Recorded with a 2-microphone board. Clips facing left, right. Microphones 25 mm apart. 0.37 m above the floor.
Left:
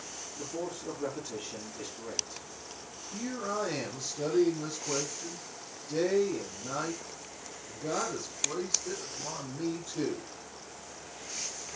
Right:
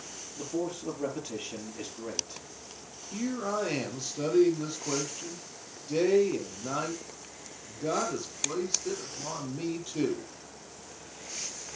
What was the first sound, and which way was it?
A man speaking, 25° right (ahead or behind).